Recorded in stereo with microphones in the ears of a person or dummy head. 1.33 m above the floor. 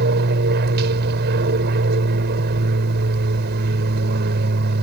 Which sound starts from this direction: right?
An aircraft, at 0.0 s.